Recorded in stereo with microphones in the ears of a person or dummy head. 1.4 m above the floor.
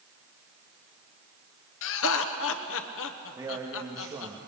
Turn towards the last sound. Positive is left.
turn(degrees=-15)  # may be behind; listen again after turning